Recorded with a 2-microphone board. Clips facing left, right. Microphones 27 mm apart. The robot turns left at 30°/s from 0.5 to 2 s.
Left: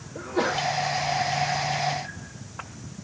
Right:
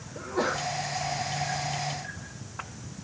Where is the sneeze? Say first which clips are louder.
Left 3 dB; 55° left (ahead or behind), 2 m.